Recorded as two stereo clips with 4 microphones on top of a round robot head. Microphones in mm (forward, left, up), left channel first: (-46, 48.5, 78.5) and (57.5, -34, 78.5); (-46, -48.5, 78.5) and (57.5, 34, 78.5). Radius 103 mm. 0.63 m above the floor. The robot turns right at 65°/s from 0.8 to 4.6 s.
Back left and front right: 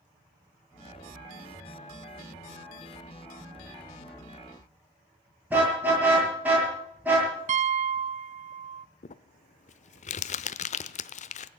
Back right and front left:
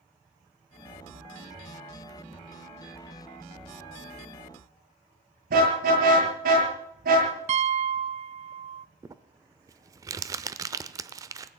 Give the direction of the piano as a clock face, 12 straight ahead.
12 o'clock.